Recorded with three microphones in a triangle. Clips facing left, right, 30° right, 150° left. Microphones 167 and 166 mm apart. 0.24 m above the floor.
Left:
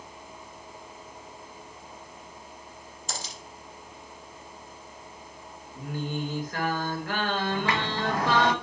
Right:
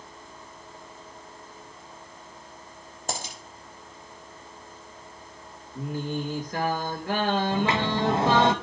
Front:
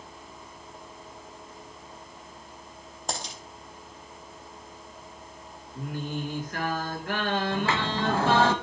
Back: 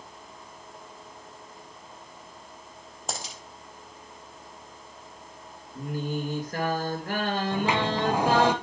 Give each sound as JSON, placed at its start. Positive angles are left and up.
{"t": 3.1, "sound": "a dropped coin", "azimuth_deg": -125, "distance_m": 3.0}
{"t": 5.8, "sound": "singing", "azimuth_deg": -160, "distance_m": 4.0}
{"t": 7.5, "sound": "a sliding door", "azimuth_deg": -140, "distance_m": 0.8}